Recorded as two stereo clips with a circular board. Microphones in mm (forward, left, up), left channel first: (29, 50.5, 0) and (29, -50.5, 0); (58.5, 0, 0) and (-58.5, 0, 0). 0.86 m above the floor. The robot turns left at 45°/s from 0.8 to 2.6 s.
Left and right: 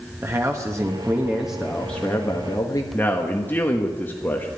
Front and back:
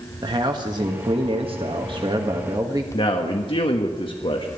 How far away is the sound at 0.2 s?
About 1.3 m.